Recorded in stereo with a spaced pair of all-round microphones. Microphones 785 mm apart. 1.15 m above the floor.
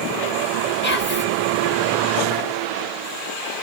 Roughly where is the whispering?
Centre.